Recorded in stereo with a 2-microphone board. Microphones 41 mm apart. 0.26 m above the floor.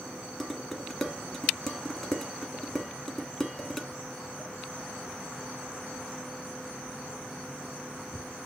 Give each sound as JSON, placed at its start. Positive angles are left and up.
{"t": 0.4, "sound": "dishes clattering", "side_deg": 10, "distance_m": 1.5}